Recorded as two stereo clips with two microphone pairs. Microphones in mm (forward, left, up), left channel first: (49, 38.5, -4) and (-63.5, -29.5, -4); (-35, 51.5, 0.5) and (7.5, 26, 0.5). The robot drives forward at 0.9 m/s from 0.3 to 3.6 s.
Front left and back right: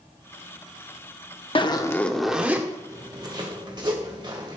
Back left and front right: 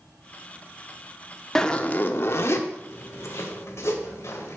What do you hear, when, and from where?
1.6 s a zipper: 75° left, 0.8 m; by 4.6 s 160° left, 1.8 m